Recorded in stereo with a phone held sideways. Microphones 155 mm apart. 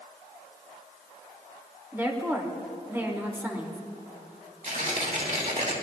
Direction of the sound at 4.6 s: 55° right (ahead or behind).